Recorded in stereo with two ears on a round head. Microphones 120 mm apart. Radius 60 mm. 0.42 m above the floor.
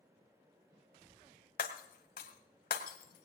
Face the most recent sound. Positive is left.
turn(degrees=75)  # may be behind; listen again after turning